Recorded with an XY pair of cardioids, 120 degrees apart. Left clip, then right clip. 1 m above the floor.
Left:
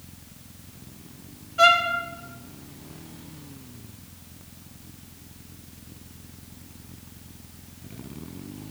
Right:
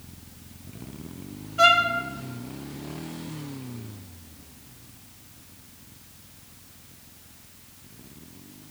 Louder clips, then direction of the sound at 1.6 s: Even; 5° left.